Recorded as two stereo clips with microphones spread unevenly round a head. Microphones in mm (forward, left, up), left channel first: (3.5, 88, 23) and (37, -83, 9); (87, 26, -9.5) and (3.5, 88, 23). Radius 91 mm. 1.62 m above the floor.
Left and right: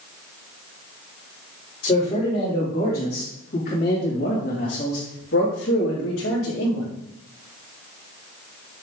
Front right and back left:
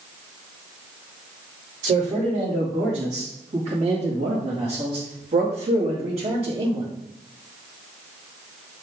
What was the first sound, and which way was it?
A man speaking, 165° left.